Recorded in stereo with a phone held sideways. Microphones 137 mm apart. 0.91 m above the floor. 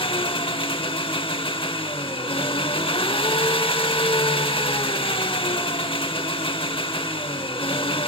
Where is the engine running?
40° left (ahead or behind), 0.7 m.